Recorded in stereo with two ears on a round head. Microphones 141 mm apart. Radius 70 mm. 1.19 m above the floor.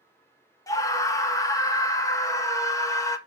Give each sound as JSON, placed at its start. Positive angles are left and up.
{"t": 0.7, "sound": "a scream", "side_deg": 20, "distance_m": 1.1}